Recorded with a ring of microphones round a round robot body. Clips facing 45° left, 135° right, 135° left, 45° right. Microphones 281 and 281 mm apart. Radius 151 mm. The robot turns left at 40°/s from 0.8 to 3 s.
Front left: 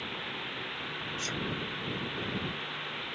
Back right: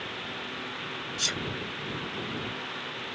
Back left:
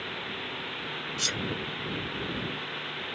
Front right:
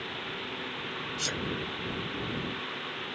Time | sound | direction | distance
1.2 | a sneeze | 145° right | ?